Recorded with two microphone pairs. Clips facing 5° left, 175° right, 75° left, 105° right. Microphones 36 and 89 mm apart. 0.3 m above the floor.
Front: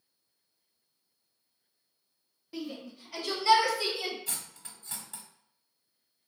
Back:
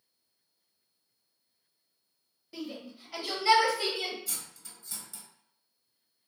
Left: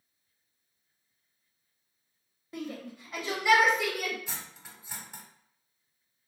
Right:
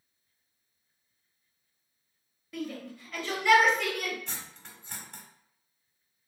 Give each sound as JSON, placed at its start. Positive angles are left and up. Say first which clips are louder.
{"t": 2.5, "sound": "a shout", "louder": "front 1 dB, right 1 dB", "azimuth_deg": 85, "distance_m": 1.3}
{"t": 4.3, "sound": "cutlery clinking", "louder": "front 1 dB, even", "azimuth_deg": 0, "distance_m": 0.9}